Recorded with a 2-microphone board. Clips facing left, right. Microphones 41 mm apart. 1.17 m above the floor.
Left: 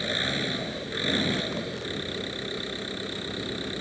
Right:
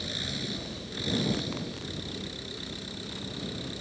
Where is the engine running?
45° left (ahead or behind).